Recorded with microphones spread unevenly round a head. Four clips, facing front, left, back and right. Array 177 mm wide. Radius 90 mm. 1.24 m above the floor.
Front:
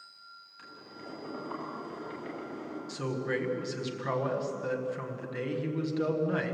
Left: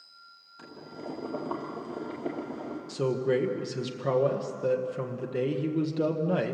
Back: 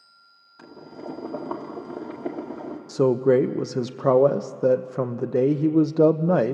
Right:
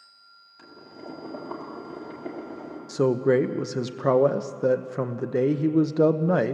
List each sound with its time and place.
0.6 s boiling: 160° left, 2 m
2.9 s a man speaking: 155° right, 0.8 m